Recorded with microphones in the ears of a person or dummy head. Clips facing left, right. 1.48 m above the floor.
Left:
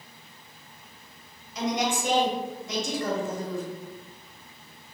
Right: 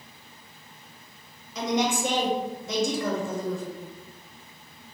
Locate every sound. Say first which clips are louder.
1.6 s a woman speaking: right 2 dB; 75° right (ahead or behind), 1.7 m